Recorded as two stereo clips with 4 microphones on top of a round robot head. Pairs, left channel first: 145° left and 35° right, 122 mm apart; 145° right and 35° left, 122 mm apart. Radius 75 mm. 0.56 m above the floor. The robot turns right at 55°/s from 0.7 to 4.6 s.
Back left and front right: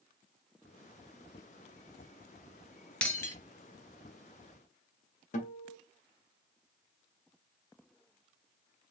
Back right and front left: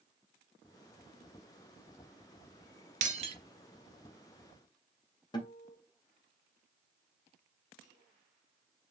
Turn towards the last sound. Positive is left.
turn(degrees=160)